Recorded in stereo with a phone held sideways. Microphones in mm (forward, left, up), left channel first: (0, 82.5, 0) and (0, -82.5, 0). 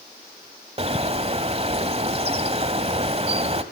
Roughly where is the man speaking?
I don't hear a man speaking.